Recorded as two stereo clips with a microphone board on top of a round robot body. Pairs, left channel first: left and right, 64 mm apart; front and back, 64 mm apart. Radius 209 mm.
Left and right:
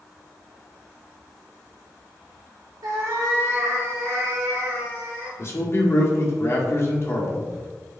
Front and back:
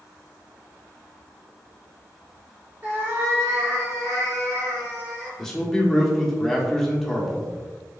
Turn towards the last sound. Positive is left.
turn(degrees=80)